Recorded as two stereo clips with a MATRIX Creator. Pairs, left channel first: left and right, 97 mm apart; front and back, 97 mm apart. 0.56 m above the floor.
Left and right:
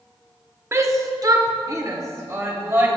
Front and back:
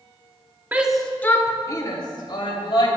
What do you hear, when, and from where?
0.7 s a shout: 125° right, 0.8 m; by 2.9 s 30° right, 2.5 m